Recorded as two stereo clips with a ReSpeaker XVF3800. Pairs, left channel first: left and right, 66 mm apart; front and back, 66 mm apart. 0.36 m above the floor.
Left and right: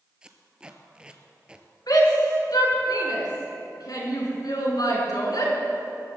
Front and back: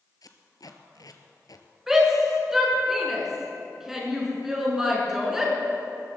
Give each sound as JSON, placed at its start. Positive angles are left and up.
{"t": 0.2, "sound": "tape being pulled", "azimuth_deg": -15, "distance_m": 1.2}
{"t": 1.9, "sound": "a shout", "azimuth_deg": 95, "distance_m": 4.5}